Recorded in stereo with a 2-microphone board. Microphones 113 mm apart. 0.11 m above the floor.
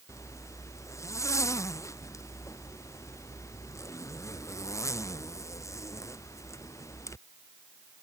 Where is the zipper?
25° left (ahead or behind).